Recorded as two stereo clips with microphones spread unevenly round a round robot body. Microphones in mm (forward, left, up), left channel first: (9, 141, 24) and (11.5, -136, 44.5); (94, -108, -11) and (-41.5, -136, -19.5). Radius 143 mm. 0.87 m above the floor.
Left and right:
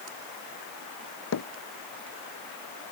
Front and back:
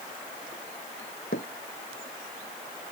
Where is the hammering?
55° left.